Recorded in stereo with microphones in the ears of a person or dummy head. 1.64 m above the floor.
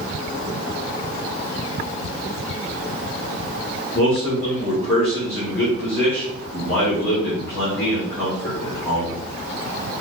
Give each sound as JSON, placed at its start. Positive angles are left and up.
{"t": 3.9, "sound": "a man speaking", "side_deg": 10, "distance_m": 1.8}